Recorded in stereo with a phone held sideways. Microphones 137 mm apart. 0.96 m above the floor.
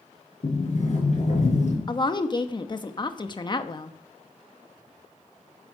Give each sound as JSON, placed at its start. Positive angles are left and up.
{"t": 0.4, "sound": "a sliding door", "side_deg": 60, "distance_m": 4.5}
{"t": 1.9, "sound": "a woman speaking", "side_deg": 35, "distance_m": 1.1}